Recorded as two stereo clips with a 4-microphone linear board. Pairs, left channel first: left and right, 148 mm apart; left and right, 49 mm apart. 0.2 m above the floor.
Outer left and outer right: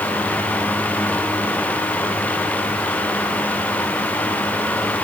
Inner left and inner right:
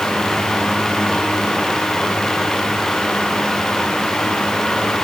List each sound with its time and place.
Only background noise.